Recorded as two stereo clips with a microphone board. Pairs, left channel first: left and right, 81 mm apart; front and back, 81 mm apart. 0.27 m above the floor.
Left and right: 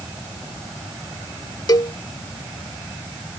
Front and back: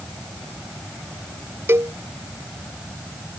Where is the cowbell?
125° left.